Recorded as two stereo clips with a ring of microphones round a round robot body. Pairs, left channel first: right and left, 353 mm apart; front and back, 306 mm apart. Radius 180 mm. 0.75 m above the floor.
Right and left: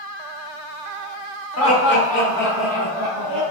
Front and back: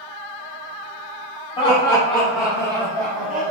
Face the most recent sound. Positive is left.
turn(degrees=125)